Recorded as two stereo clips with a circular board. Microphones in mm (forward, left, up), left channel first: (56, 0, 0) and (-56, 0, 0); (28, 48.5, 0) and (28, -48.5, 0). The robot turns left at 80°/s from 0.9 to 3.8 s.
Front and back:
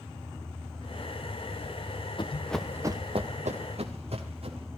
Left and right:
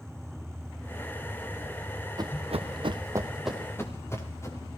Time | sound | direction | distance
2.2 | running footsteps | 40° right | 1.3 m